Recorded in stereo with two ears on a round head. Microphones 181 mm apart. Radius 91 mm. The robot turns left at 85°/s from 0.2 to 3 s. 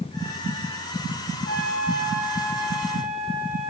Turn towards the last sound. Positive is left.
turn(degrees=-75)